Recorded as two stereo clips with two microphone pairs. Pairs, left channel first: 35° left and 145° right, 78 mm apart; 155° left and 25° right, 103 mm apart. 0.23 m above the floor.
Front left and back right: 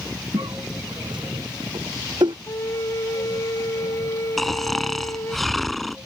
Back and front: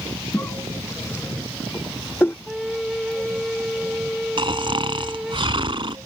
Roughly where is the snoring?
Ahead right.